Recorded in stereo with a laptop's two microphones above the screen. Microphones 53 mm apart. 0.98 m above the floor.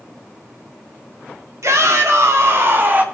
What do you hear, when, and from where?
1.6 s a shout: 75° right (ahead or behind), 3 m; by 3.0 s 35° right (ahead or behind), 2 m